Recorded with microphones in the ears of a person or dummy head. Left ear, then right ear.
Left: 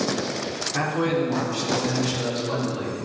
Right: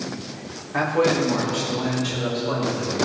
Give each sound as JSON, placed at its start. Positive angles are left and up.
{"t": 0.7, "sound": "a man speaking", "side_deg": -30, "distance_m": 3.0}